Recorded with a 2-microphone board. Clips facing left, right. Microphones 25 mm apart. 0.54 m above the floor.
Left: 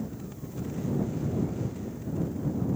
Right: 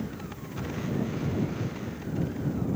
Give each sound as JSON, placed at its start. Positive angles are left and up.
{"t": 0.0, "sound": "a motorcycle", "side_deg": -40}